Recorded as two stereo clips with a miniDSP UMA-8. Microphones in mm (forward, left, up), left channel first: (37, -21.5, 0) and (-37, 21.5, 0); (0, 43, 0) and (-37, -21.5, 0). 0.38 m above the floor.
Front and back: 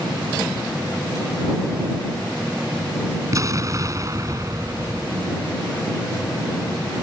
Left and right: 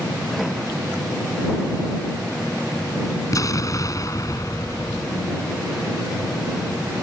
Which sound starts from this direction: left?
An explosion, at 3.3 s.